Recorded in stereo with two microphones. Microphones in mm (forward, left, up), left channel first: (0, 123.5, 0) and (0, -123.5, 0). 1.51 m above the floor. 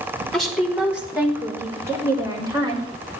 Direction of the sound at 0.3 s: Centre (ahead or behind).